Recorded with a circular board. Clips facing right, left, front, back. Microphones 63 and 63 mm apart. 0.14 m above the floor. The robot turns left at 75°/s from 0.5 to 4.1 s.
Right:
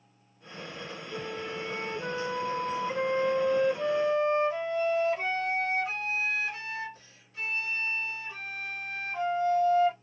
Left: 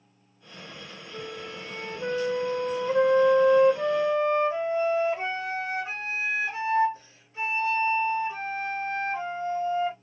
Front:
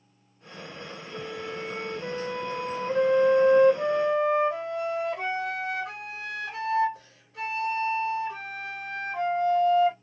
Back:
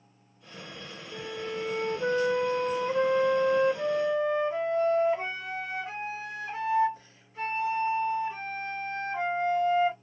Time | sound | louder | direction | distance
1.1 | a flute | right 2 dB, back 1 dB | 110° right | 1.3 m